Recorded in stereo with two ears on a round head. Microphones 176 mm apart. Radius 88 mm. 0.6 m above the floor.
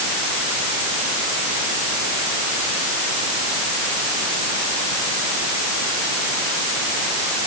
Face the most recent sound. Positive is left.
No sound to turn to.